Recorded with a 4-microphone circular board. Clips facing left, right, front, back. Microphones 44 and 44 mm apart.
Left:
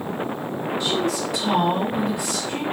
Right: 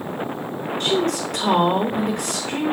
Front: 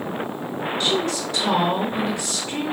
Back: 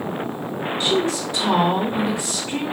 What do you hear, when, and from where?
0.8 s a woman speaking: 115° right, 3.5 m